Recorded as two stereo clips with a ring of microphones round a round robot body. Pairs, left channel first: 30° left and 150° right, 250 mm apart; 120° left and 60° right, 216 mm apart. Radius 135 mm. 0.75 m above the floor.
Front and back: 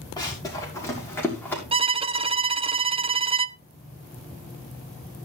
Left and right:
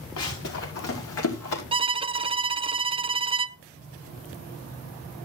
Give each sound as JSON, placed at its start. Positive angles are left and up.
{"t": 0.2, "sound": "running footsteps", "azimuth_deg": 105, "distance_m": 6.0}
{"t": 1.7, "sound": "a violin", "azimuth_deg": -100, "distance_m": 0.5}